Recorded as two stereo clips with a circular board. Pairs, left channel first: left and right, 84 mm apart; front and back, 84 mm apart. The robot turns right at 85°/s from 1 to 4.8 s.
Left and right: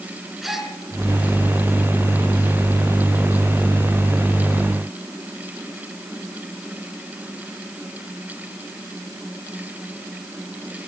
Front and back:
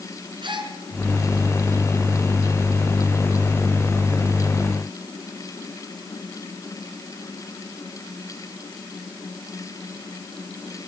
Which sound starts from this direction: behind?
A gasp, at 0.4 s.